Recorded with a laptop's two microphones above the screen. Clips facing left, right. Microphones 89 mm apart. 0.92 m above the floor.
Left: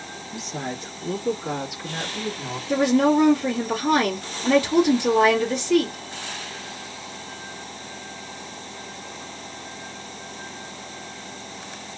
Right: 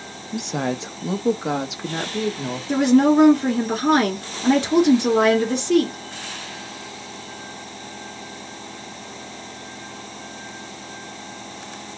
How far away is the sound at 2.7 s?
About 2.5 m.